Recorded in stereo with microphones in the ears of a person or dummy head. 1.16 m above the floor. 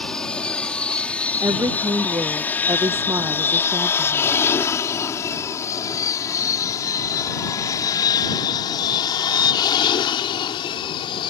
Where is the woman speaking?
20° right (ahead or behind).